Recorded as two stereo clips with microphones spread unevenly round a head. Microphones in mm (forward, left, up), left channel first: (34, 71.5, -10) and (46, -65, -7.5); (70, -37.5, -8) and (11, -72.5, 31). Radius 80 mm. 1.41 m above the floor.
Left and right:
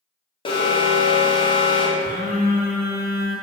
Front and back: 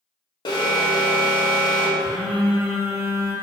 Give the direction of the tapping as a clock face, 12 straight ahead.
I don't hear tapping.